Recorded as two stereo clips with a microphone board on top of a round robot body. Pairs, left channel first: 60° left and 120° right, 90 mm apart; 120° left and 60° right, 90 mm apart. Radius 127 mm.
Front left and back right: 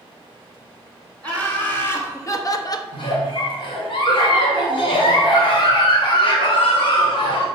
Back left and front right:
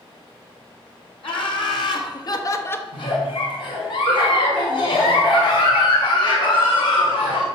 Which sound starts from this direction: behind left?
Laughter, at 1.2 s.